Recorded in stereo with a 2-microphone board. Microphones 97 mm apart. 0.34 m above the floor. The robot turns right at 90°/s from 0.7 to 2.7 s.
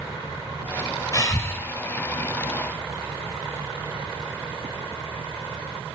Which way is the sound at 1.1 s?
110° left.